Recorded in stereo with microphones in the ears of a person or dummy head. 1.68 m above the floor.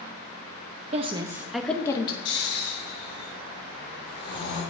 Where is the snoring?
25° left (ahead or behind), 4.5 m.